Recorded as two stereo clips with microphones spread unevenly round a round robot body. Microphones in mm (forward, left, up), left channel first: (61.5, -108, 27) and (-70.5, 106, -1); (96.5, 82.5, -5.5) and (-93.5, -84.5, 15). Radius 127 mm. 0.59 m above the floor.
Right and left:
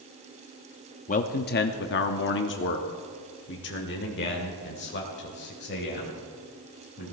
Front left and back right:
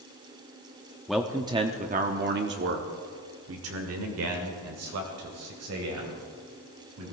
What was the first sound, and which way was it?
A man speaking, 35° right.